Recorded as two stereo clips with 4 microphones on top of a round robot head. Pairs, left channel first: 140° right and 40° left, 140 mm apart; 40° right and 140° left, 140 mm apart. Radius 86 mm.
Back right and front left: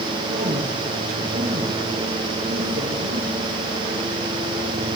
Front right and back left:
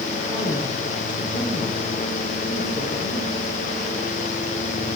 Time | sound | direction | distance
0.3 | a woman speaking | 60° left | 9.5 m